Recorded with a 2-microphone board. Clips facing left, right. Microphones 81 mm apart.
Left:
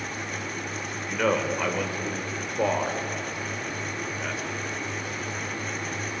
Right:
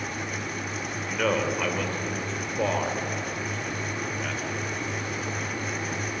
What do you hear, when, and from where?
1.1 s a man speaking: 5° left (ahead or behind), 3 m